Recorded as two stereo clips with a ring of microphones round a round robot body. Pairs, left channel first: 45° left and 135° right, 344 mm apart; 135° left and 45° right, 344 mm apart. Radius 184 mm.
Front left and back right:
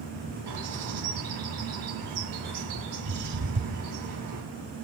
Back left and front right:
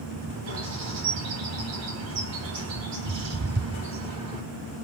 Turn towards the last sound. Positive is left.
turn(degrees=-90)